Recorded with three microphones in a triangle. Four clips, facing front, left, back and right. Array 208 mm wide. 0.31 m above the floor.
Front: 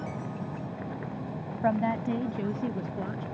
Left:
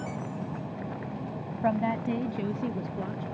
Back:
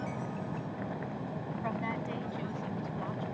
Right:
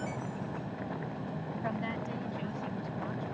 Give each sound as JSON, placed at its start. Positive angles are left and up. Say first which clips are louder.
{"t": 1.6, "sound": "a woman speaking", "louder": "left 11 dB, front 11 dB", "azimuth_deg": 40}